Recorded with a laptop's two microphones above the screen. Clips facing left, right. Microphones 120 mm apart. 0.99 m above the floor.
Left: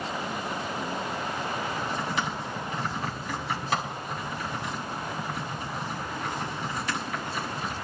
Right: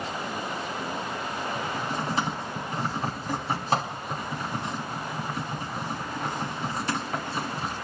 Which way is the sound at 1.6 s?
35° right (ahead or behind).